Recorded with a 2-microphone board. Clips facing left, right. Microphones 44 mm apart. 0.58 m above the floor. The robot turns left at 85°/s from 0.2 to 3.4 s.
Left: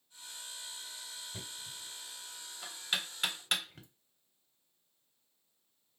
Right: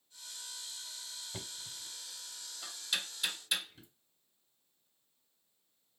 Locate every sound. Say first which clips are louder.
1.3 s knocking: even; 60° right (ahead or behind), 1.6 m; by 3.9 s 60° left (ahead or behind), 1.6 m